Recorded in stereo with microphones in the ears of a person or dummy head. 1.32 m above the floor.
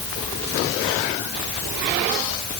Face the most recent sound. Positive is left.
No sound to turn to.